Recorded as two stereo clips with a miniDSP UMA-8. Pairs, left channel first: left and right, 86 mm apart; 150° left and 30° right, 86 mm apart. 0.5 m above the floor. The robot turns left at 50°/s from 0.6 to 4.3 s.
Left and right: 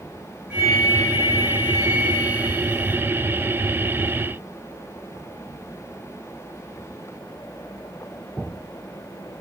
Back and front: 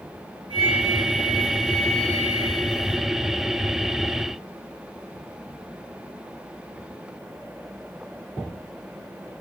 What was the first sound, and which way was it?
A flute, 10° right.